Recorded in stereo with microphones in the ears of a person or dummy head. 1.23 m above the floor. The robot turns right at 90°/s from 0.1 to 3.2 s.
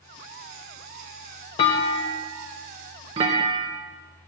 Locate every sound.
1.6 s a clunk: 20° left (ahead or behind), 0.6 m; by 3.8 s 20° right (ahead or behind), 0.6 m